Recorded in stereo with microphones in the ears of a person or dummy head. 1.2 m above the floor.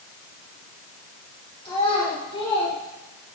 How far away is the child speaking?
About 3.5 m.